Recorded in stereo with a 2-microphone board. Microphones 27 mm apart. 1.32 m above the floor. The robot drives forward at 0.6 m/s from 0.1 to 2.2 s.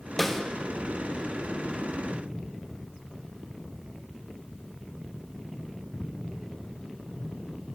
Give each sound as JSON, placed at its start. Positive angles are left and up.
{"t": 0.2, "sound": "a snare drum", "side_deg": 10, "distance_m": 1.0}